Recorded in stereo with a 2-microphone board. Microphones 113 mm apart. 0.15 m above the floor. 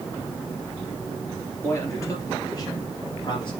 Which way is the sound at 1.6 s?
20° left (ahead or behind).